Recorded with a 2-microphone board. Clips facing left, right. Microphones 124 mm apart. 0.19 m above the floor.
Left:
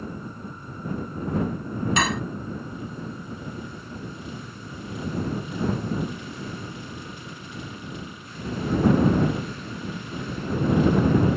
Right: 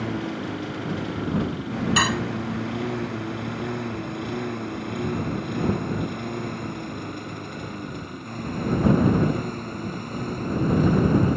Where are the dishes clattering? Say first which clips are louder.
Even; centre (ahead or behind).